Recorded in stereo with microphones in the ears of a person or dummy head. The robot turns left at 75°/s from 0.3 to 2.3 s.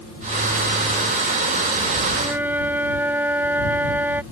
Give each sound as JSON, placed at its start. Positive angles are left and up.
{"t": 2.1, "sound": "a flute", "side_deg": -25}